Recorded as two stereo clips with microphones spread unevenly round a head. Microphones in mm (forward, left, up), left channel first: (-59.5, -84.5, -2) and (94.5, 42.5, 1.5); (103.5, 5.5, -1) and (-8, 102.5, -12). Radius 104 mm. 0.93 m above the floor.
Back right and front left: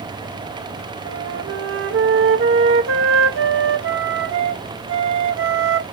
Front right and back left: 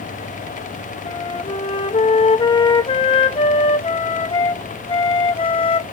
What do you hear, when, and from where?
1.1 s a flute: 15° left, 0.8 m